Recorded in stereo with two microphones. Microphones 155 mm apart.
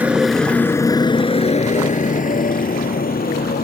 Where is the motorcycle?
10° right (ahead or behind); by 3.6 s 75° left (ahead or behind).